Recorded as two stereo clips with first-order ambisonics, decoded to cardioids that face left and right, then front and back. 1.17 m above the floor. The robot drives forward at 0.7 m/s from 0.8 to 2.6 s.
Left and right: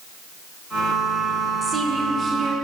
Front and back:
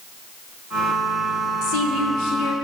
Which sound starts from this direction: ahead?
A woman speaking, at 1.6 s.